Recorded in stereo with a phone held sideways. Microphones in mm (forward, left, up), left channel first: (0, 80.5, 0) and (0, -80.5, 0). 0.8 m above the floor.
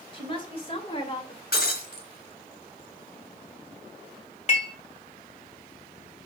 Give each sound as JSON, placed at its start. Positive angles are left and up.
{"t": 0.1, "sound": "a woman speaking", "side_deg": 35, "distance_m": 3.0}
{"t": 1.5, "sound": "breaking glass", "side_deg": 90, "distance_m": 2.5}
{"t": 4.5, "sound": "dishes clattering", "side_deg": 45, "distance_m": 2.5}